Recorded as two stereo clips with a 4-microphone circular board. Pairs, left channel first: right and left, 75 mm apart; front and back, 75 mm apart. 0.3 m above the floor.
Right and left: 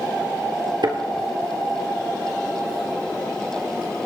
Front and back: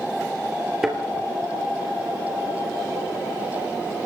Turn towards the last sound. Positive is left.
turn(degrees=95)